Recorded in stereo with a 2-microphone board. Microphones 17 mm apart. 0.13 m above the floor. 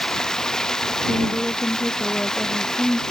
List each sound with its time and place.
0.0 s running water: 30° left (ahead or behind)
1.1 s a woman speaking: 80° left